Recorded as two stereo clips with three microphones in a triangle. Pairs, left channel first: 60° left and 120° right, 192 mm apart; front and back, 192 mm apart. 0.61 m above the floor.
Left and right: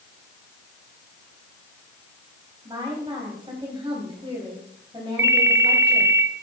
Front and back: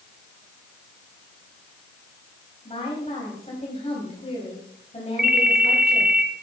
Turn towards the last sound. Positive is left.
turn(degrees=-140)